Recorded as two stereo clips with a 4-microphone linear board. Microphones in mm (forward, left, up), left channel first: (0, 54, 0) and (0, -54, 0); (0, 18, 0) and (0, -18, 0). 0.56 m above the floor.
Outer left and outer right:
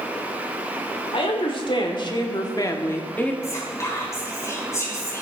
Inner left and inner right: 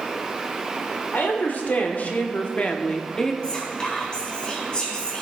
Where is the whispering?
25° left (ahead or behind), 4 m.